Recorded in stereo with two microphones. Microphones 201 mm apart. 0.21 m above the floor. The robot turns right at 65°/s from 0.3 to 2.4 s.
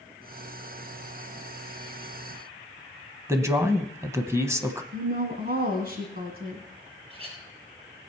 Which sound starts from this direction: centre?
A man speaking, at 3.3 s.